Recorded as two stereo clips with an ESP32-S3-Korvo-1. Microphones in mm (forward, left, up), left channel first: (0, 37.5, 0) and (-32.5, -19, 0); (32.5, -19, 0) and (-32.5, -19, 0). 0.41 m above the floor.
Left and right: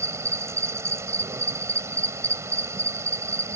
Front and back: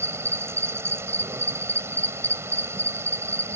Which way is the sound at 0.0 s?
145° right.